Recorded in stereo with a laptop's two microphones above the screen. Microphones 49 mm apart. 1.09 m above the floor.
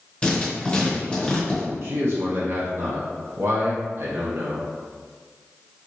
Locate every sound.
0.2 s writing: 20° left (ahead or behind), 0.8 m
1.8 s a man speaking: 60° right (ahead or behind), 0.8 m